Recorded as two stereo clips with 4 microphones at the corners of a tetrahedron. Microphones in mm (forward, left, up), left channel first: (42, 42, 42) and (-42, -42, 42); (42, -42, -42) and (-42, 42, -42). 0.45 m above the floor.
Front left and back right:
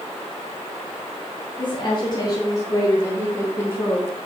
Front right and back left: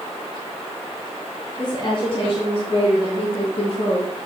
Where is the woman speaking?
5° left, 3 m; by 4.1 s 25° right, 5 m.